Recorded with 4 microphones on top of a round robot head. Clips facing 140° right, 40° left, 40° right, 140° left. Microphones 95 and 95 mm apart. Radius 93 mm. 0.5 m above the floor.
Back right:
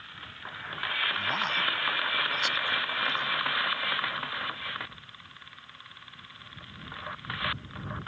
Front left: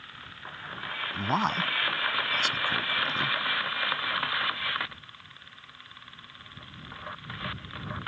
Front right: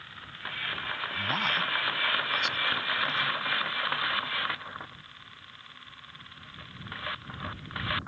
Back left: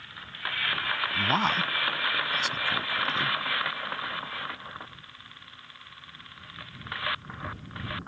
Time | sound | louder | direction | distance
1.1 | a man speaking | front left 7 dB, back left 5 dB | 85° left | ?